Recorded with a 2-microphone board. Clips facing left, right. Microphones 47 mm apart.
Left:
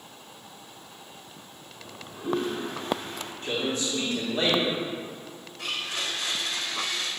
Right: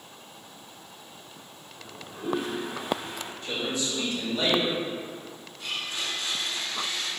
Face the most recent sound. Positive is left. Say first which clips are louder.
# left 1 dB
turn(degrees=90)